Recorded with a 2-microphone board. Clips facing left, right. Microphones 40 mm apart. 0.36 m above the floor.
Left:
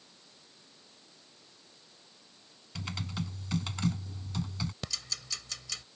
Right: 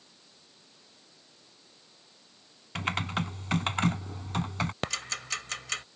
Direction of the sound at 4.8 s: 50° right (ahead or behind).